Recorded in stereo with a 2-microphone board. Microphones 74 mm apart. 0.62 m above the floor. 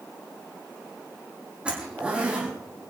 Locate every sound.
1.6 s a zipper: 15° right (ahead or behind), 6 m